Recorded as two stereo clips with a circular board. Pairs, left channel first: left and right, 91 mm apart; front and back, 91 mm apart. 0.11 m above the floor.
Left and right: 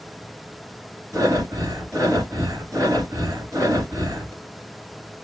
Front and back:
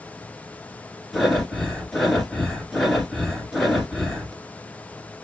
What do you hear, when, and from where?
1.1 s breathing: 90° right, 1.5 m